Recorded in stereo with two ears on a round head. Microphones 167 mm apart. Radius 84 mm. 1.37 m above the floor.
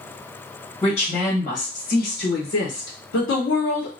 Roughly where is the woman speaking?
Left.